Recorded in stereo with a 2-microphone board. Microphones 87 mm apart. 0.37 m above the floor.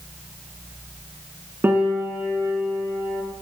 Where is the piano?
25° right (ahead or behind), 0.9 m.